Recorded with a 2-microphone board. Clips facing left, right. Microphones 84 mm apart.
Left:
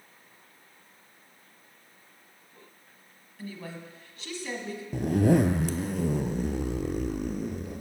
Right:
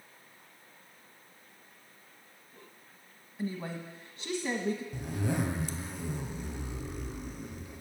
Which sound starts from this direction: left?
A zipper, at 4.9 s.